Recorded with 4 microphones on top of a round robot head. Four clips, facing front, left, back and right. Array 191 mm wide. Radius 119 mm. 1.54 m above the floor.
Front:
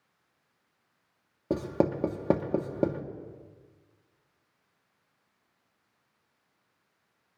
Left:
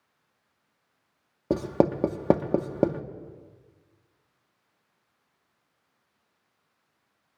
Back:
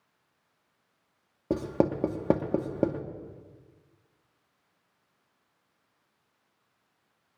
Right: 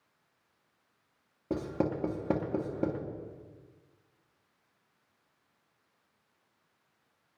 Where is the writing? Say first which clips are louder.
Left 8 dB, back 1 dB; 90° left, 0.7 m.